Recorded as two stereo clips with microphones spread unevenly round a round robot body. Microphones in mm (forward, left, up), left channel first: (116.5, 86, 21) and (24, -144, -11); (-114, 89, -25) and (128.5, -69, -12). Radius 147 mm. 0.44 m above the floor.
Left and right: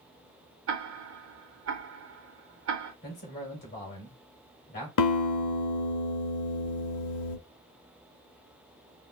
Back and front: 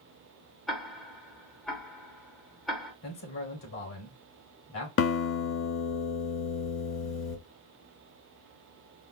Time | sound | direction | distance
0.7 | ticking | 125° right | 0.7 m
3.0 | a man speaking | 125° left | 2 m
5.0 | a guitar | 100° left | 0.7 m